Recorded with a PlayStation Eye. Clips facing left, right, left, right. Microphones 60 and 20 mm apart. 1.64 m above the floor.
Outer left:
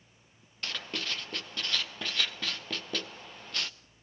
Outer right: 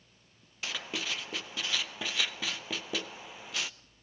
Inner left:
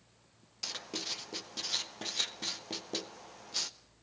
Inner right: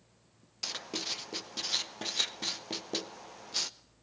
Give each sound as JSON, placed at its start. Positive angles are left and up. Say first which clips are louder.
{"t": 0.6, "sound": "writing", "louder": "even, inner right 2 dB", "side_deg": -5, "distance_m": 0.7}